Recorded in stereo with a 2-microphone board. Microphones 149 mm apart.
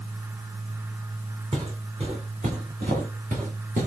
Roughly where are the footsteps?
Right.